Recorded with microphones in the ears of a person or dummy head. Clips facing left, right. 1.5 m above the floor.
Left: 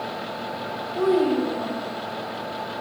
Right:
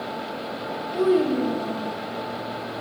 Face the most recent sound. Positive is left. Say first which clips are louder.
# even
turn(degrees=-50)  # may be behind; listen again after turning